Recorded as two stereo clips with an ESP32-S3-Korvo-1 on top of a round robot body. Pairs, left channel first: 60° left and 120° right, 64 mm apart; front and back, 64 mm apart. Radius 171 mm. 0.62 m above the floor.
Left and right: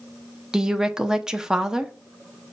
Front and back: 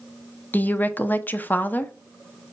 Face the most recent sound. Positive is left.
turn(degrees=-45)